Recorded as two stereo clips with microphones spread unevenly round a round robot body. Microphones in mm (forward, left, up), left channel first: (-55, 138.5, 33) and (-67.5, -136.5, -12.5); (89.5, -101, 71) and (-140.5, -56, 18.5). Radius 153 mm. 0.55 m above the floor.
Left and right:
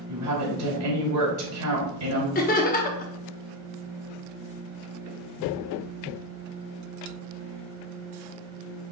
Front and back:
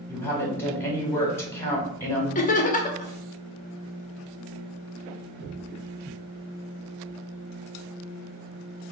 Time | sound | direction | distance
0.1 | a woman speaking | 95° right | 2 m
2.4 | laughter | 40° left | 0.7 m